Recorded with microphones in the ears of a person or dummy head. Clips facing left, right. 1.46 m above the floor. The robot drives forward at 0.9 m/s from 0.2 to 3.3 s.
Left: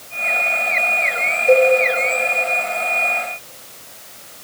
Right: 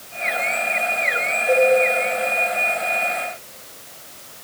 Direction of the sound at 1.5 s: 60° left (ahead or behind).